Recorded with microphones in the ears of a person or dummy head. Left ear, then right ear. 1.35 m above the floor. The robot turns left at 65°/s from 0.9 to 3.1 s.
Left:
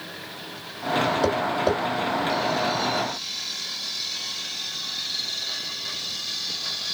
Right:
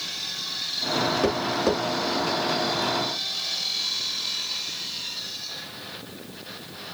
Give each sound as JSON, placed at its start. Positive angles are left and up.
{"t": 1.2, "sound": "tapping", "side_deg": 5, "distance_m": 2.0}